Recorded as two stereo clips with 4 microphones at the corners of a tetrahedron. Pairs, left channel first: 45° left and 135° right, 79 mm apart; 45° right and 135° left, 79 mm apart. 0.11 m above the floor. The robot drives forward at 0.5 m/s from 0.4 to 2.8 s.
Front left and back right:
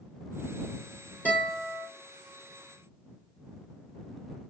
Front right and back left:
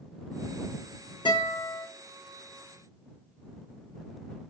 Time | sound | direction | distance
1.2 | a guitar | 25° right | 3 m